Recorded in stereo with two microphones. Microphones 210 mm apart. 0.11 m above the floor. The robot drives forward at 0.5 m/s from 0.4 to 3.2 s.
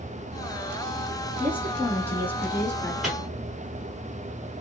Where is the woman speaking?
10° left (ahead or behind), 1.3 m; by 2.9 s 5° left (ahead or behind), 1.8 m.